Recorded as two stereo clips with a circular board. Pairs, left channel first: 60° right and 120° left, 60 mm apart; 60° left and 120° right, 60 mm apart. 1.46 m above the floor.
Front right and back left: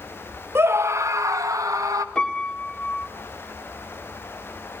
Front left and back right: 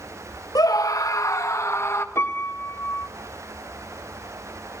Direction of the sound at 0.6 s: 70° left.